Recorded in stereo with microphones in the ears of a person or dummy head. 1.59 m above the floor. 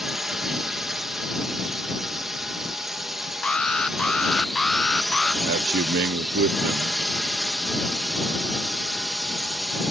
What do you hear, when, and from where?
0.0 s a drone: centre (ahead or behind)
3.4 s an alarm: 5° left (ahead or behind)
5.4 s a man speaking: 50° right (ahead or behind)